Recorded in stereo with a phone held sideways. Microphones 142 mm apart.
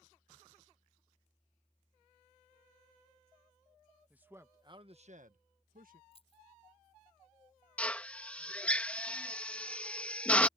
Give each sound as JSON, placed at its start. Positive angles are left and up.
{"t": 4.1, "sound": "a man speaking", "side_deg": -10}
{"t": 6.1, "sound": "keys jangling", "side_deg": 40}
{"t": 7.8, "sound": "a drill", "side_deg": 10}